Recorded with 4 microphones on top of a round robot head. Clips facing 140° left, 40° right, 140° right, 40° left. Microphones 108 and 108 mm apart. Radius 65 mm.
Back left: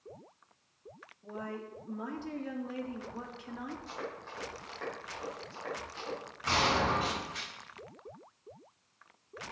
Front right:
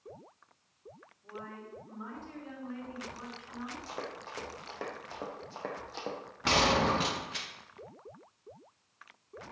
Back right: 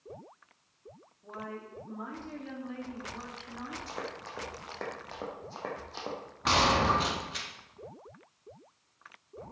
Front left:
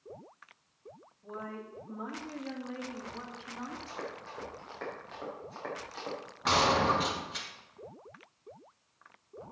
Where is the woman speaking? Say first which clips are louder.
Back left 4 dB, even; 130° left, 2.5 m.